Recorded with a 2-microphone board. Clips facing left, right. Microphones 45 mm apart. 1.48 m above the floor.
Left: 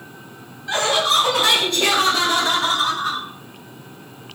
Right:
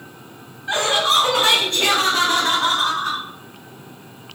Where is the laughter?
30° right (ahead or behind), 1.4 m; by 3.2 s 55° right (ahead or behind), 2.5 m.